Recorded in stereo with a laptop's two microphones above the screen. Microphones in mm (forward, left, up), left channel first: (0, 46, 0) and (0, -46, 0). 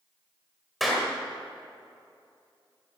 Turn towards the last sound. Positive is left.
turn(degrees=0)  # may be behind; listen again after turning